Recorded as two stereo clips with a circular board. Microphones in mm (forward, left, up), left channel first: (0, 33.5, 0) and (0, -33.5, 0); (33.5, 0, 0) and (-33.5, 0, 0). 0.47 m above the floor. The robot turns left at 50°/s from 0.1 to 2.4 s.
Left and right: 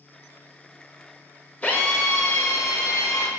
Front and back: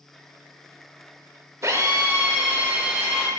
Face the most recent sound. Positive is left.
turn(degrees=110)